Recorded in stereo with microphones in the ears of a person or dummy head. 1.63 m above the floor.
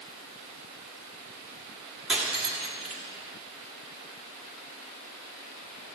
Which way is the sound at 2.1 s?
5° right (ahead or behind).